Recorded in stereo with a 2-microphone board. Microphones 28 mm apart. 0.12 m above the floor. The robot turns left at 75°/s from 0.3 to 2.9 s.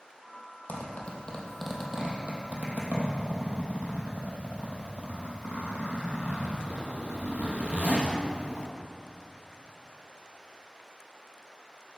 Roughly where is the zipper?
Left.